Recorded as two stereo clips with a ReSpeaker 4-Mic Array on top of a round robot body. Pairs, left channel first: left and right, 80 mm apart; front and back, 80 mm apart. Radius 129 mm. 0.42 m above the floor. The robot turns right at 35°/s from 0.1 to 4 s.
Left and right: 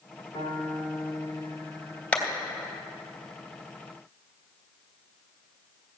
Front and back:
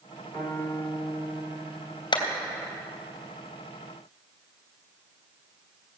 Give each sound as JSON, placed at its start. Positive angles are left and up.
{"t": 0.3, "sound": "a piano", "azimuth_deg": 65, "distance_m": 3.0}
{"t": 2.1, "sound": "a clap", "azimuth_deg": 15, "distance_m": 3.0}